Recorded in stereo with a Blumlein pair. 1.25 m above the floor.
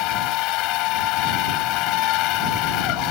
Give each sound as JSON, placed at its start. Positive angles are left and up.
{"t": 0.0, "sound": "a machine running", "azimuth_deg": 40}